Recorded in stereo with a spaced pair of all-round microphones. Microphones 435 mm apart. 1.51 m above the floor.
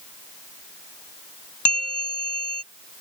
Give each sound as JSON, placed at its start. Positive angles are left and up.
{"t": 1.6, "sound": "a bell", "side_deg": 65}